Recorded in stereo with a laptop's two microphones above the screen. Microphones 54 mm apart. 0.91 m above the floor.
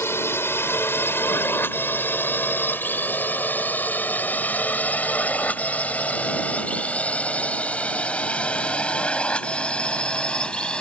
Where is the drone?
50° left (ahead or behind); by 10.8 s 15° left (ahead or behind).